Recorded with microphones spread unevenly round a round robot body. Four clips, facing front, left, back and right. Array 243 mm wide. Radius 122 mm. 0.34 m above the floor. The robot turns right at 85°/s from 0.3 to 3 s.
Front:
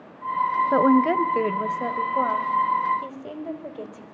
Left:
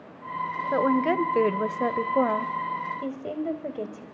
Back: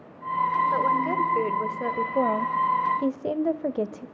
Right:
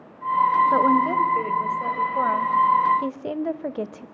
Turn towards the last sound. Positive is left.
turn(degrees=-165)